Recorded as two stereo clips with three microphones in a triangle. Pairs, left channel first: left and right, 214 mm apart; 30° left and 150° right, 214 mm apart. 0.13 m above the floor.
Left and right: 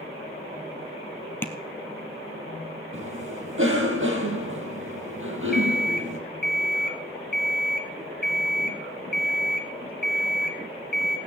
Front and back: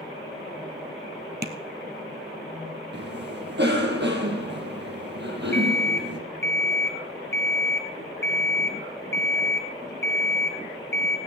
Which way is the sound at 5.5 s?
50° left.